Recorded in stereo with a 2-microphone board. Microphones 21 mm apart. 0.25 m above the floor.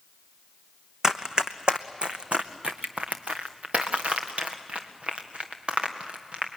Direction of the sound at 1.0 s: 35° right (ahead or behind).